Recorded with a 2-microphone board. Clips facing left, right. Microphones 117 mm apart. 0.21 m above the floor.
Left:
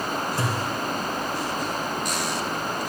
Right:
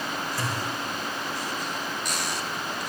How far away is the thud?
About 2.5 m.